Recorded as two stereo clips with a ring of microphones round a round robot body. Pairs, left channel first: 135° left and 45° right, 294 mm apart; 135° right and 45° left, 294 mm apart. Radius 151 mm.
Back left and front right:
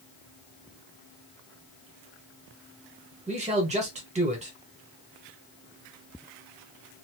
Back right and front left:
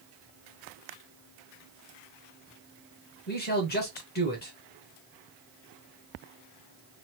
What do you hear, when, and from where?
3.3 s a man speaking: 100° right, 1.3 m